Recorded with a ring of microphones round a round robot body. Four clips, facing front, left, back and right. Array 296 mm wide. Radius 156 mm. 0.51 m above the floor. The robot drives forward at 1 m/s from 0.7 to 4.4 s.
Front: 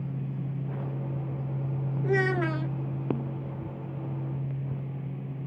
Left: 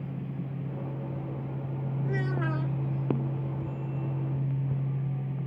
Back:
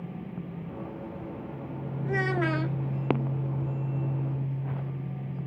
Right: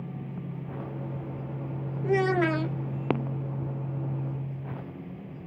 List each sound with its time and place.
2.0 s a child speaking: 50° right; by 2.8 s 130° right